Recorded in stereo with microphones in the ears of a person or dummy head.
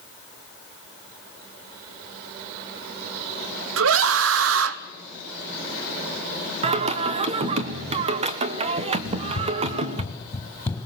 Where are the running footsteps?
30° left (ahead or behind), 2.5 m; by 10.9 s 15° left (ahead or behind), 3.5 m.